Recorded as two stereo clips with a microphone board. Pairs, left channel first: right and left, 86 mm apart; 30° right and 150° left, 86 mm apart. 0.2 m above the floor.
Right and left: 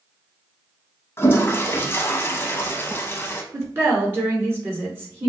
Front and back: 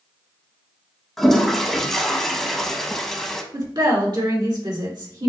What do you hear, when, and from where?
1.2 s a toilet flushing: 110° right, 0.6 m
3.5 s a woman speaking: 145° left, 2.5 m